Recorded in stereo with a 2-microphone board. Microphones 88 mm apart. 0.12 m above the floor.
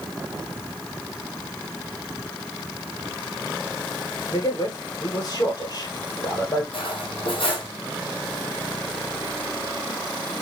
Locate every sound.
4.3 s a man speaking: 45° left (ahead or behind), 2.5 m
6.7 s cutlery clinking: 70° left (ahead or behind), 2.5 m